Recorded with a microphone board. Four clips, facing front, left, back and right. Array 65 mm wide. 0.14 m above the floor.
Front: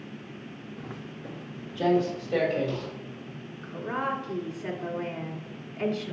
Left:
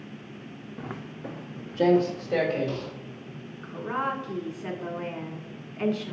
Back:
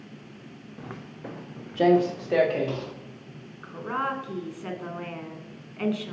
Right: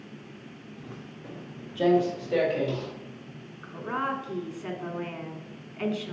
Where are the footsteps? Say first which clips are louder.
Left 7 dB, back 3 dB; 105° left, 0.7 m; by 2.9 s 175° left, 3 m.